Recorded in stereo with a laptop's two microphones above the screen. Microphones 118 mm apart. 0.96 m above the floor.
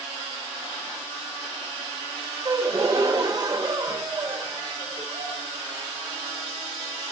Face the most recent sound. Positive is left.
turn(degrees=-35)  # may be behind; listen again after turning